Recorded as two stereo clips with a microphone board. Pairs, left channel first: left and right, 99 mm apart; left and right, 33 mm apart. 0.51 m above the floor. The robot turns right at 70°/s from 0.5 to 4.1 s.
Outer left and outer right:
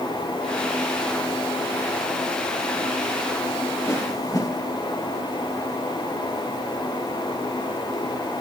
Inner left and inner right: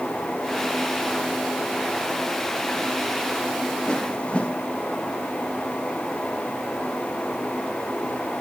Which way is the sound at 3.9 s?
25° left (ahead or behind).